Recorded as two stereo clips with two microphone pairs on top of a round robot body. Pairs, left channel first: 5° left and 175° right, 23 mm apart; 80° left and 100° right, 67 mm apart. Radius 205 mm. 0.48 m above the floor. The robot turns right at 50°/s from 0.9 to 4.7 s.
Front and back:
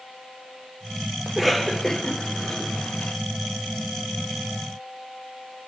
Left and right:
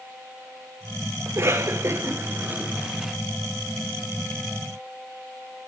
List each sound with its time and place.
1.3 s a cough: 100° right, 1.3 m; by 3.2 s 5° right, 1.3 m